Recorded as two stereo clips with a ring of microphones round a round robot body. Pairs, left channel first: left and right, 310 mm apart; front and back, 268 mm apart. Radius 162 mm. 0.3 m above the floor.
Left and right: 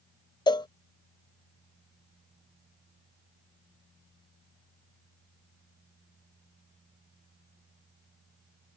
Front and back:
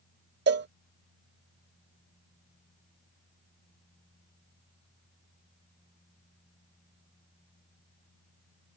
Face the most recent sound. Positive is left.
turn(degrees=160)